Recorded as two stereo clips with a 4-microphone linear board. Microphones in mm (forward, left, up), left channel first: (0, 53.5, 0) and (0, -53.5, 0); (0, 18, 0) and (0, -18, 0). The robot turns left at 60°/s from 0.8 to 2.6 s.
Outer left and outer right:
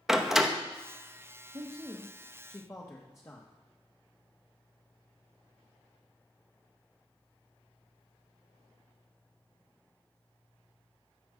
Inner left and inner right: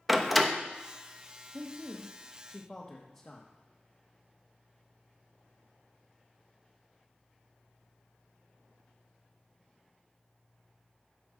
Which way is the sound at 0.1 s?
5° right (ahead or behind).